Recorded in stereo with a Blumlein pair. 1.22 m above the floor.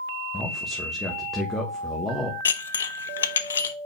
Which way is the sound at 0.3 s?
5° left.